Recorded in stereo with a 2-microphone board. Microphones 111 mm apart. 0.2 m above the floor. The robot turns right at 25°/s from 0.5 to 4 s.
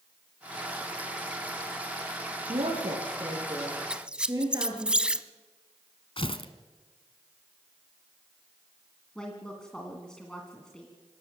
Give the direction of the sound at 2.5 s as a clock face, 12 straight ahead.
2 o'clock.